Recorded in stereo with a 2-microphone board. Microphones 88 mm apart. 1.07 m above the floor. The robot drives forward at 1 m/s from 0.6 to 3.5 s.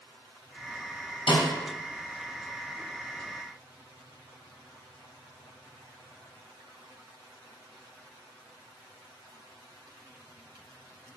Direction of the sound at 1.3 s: 80° left.